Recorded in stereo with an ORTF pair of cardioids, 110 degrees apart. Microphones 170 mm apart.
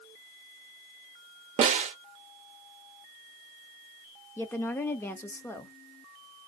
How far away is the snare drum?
About 1.0 m.